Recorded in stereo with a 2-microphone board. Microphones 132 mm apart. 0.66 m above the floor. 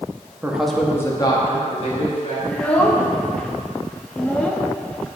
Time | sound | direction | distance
0.4 | a man speaking | 15° right (ahead or behind) | 0.9 m
2.5 | a child speaking | 10° left (ahead or behind) | 0.5 m